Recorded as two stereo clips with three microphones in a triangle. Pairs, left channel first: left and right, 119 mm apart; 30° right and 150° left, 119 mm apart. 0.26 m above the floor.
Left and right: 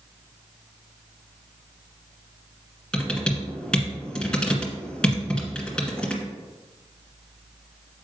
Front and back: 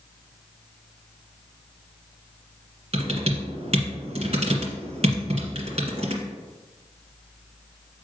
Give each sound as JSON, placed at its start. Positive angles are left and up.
{"t": 2.9, "sound": "typing on a keyboard", "azimuth_deg": 170, "distance_m": 1.7}